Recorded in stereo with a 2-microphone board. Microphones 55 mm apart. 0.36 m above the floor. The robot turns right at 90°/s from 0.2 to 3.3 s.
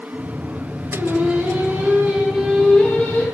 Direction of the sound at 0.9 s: 145° right.